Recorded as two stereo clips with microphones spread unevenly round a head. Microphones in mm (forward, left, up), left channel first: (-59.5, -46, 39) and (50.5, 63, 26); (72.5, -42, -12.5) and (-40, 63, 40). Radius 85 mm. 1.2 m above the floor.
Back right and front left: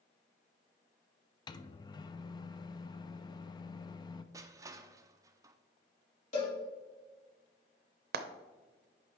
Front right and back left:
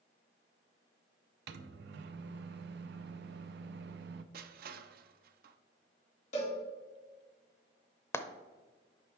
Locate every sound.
1.5 s a microwave: 160° left, 0.5 m
4.3 s crushing: 115° left, 0.5 m
6.3 s a cowbell: 85° right, 3.5 m
8.1 s frying: 25° left, 0.6 m